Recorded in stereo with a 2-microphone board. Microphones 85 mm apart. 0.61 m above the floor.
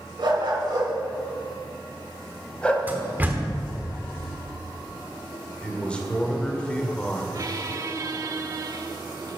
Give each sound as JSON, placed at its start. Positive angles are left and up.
{"t": 0.2, "sound": "a dog barking", "side_deg": -60, "distance_m": 3.0}
{"t": 2.9, "sound": "a door slam", "side_deg": -20, "distance_m": 1.2}
{"t": 5.6, "sound": "a man speaking", "side_deg": 15, "distance_m": 1.5}
{"t": 7.3, "sound": "a squeak", "side_deg": -40, "distance_m": 0.8}